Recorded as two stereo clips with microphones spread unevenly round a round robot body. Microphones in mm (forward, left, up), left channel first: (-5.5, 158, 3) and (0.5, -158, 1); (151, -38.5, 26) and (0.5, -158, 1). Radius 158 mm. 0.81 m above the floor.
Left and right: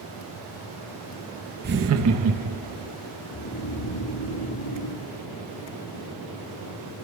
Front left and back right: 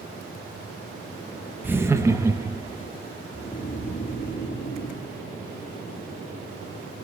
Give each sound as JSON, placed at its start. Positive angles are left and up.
{"t": 1.6, "sound": "laughter", "azimuth_deg": -90, "distance_m": 0.7}
{"t": 3.3, "sound": "snoring", "azimuth_deg": 100, "distance_m": 6.0}